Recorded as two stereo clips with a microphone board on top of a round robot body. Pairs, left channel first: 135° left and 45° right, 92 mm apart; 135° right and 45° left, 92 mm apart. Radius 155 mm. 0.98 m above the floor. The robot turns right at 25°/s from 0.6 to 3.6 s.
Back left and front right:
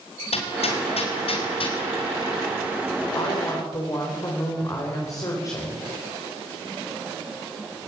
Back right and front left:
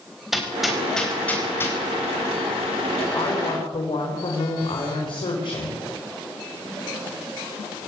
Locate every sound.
0.3 s hammering: 135° left, 5 m; by 1.8 s 165° left, 5 m
3.1 s a woman speaking: straight behind, 4 m; by 5.8 s 170° right, 4 m